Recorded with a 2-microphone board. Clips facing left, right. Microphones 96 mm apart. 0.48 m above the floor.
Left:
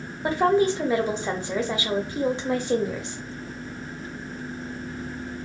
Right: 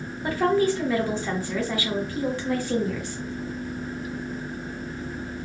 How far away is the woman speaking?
About 0.7 m.